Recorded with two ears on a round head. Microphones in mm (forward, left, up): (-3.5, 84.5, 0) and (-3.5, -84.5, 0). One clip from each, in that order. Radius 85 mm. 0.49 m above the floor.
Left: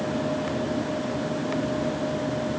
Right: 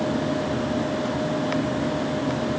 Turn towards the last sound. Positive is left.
No sound to turn to.